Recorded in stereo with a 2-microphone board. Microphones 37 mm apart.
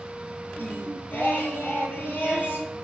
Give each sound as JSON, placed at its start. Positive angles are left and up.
{"t": 0.6, "sound": "singing", "side_deg": 65, "distance_m": 5.0}